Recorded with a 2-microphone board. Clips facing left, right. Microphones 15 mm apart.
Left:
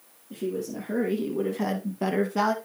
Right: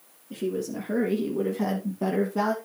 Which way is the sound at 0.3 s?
20° right (ahead or behind).